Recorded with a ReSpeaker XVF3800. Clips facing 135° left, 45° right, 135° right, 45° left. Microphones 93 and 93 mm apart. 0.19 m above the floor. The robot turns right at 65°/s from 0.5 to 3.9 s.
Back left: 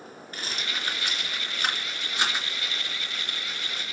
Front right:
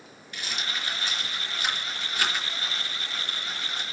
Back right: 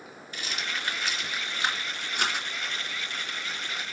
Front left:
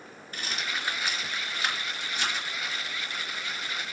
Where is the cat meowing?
No cat meowing in this recording.